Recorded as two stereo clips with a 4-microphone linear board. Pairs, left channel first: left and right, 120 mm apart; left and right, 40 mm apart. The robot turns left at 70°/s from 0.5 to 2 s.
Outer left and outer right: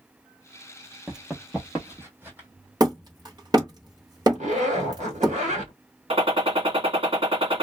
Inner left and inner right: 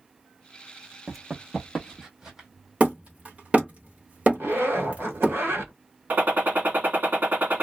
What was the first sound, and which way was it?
Running footsteps, 5° right (ahead or behind).